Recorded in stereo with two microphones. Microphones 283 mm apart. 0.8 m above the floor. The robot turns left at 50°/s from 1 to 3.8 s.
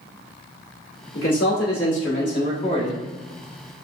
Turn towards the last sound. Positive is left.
turn(degrees=-30)